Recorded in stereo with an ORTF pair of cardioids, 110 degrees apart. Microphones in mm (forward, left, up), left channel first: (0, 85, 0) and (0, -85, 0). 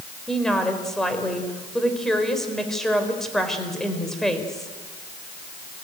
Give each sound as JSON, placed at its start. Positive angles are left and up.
{"t": 0.3, "sound": "a woman speaking", "azimuth_deg": 5, "distance_m": 4.0}